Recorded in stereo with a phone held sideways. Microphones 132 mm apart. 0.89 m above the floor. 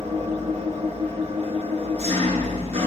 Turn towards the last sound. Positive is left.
turn(degrees=-55)  # may be behind; listen again after turning